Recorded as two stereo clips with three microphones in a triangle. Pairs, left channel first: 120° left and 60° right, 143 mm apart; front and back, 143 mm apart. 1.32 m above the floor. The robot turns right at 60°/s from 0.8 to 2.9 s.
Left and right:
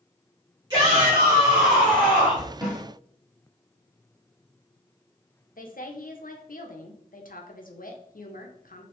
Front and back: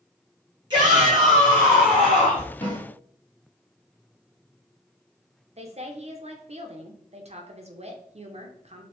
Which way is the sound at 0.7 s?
125° right.